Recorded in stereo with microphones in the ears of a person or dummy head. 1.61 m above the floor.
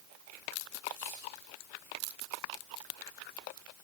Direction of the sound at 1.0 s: 20° left (ahead or behind).